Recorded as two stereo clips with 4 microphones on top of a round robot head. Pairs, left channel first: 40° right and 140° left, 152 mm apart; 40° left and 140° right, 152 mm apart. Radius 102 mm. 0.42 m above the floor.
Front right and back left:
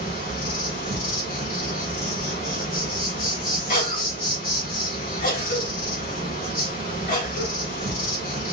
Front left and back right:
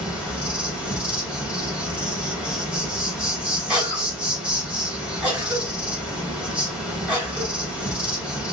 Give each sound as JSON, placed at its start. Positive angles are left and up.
{"t": 0.0, "sound": "an insect", "azimuth_deg": -55, "distance_m": 3.0}
{"t": 3.7, "sound": "a cough", "azimuth_deg": -55, "distance_m": 3.5}